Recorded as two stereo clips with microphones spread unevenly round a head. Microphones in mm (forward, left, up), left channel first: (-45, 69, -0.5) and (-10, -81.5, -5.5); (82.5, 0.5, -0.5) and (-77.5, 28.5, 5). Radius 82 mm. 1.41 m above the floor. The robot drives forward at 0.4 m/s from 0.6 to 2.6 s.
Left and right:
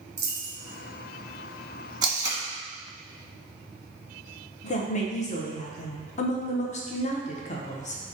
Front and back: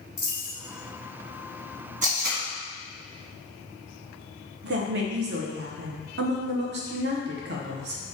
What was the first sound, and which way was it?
A dropped coin, 75° right.